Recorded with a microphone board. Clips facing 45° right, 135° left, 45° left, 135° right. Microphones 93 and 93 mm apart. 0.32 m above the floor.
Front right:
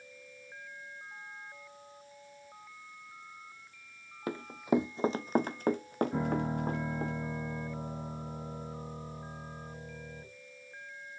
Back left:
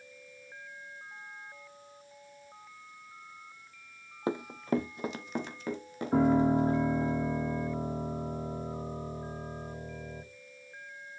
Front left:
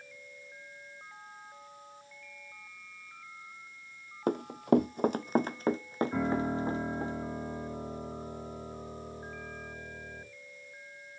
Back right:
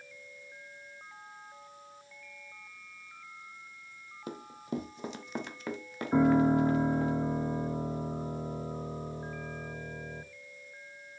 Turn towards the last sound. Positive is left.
turn(degrees=170)